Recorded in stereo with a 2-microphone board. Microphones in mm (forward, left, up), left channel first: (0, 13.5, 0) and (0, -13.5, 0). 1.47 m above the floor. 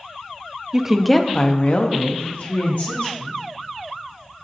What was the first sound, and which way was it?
A woman speaking, 20° right (ahead or behind).